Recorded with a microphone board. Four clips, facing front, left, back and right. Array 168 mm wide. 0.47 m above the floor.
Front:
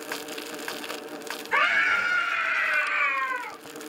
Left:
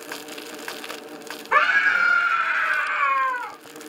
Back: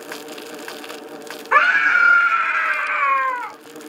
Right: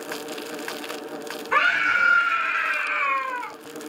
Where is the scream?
165° left, 5.5 m; by 3.5 s 160° left, 4 m.